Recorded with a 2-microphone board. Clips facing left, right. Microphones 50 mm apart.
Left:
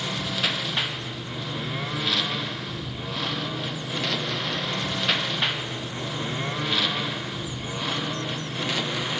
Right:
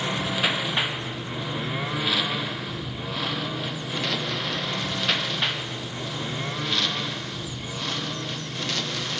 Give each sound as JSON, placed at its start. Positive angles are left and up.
{"t": 0.0, "sound": "a lawn mower", "side_deg": -20}